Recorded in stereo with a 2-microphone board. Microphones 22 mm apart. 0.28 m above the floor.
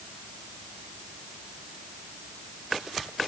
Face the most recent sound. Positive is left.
No sound to turn to.